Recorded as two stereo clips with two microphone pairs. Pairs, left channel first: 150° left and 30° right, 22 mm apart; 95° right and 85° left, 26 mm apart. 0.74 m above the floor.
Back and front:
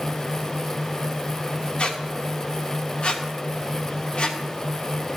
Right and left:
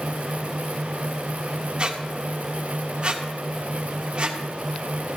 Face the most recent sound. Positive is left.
turn(degrees=135)